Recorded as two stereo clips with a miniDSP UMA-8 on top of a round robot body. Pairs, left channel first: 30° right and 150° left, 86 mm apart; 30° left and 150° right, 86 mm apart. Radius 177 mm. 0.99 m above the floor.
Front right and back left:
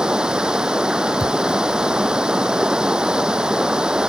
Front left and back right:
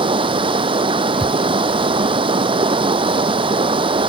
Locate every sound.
0.0 s running water: 130° right
1.2 s a thud: 105° left